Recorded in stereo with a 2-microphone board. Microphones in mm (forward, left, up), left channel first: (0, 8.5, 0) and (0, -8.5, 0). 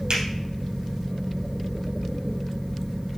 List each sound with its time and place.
0.1 s a finger snap: 65° right (ahead or behind), 3 m